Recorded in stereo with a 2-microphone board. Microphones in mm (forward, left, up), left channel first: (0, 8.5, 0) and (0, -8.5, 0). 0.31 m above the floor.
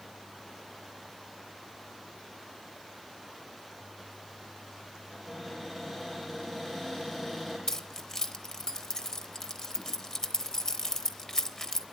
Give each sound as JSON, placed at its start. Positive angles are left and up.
{"t": 5.1, "sound": "a cupboard door", "side_deg": 0, "distance_m": 6.5}
{"t": 7.7, "sound": "keys jangling", "side_deg": 30, "distance_m": 0.7}